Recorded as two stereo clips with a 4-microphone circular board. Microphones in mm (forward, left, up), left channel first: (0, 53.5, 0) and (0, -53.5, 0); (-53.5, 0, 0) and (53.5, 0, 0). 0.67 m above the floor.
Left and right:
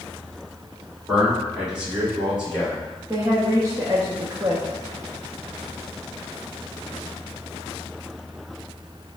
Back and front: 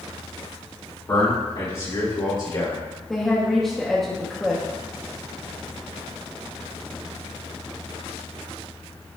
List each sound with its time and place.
1.1 s a man speaking: 165° right, 1.5 m
3.1 s a woman speaking: 95° right, 0.6 m